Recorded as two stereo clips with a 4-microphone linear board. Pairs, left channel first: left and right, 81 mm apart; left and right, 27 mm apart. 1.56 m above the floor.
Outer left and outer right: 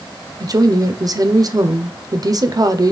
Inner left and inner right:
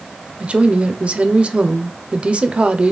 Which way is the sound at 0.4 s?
50° right (ahead or behind).